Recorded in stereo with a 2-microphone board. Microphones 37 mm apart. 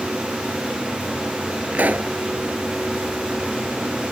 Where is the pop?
50° right (ahead or behind).